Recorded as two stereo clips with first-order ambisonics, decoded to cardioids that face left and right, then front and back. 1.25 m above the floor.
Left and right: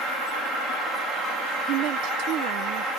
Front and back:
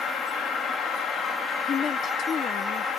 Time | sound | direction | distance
1.7 | a woman speaking | 60° right | ?